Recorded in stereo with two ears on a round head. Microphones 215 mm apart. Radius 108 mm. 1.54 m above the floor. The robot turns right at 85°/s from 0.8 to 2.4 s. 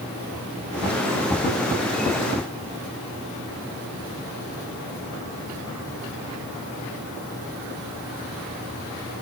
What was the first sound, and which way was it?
Only background noise.